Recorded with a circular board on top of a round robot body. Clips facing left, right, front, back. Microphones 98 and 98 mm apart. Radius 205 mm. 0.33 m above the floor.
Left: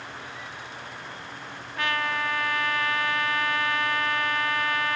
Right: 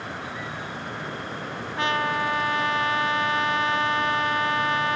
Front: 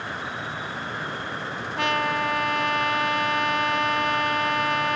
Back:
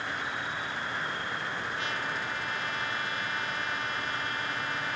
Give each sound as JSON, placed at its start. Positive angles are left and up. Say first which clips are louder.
{"t": 0.0, "sound": "an insect", "louder": "right 6 dB, front 2 dB", "azimuth_deg": -65}
{"t": 1.8, "sound": "a trumpet", "louder": "right 3 dB, front 10 dB", "azimuth_deg": -25}